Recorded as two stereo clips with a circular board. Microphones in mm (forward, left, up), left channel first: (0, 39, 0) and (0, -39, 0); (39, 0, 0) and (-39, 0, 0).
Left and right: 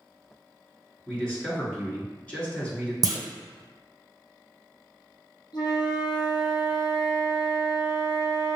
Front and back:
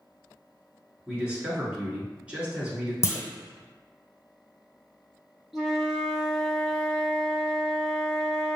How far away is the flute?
About 1.1 m.